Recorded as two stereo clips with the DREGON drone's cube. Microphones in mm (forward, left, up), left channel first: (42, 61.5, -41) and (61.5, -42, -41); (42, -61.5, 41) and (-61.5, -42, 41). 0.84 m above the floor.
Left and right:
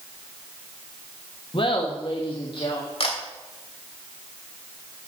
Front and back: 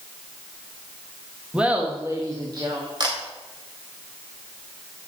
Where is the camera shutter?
125° left, 3 m.